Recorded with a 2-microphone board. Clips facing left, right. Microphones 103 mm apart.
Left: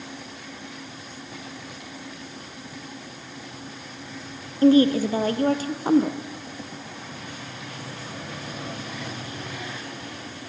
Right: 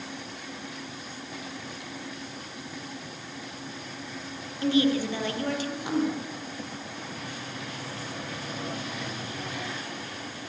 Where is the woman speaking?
40° left (ahead or behind), 3 m.